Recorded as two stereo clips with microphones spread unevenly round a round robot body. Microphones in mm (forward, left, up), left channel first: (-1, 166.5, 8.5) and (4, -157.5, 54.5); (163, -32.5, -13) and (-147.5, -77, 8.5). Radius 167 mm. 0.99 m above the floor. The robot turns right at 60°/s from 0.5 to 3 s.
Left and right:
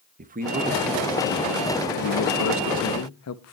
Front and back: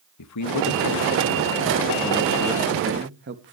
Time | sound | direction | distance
0.2 | a man speaking | 20° right | 1.2 m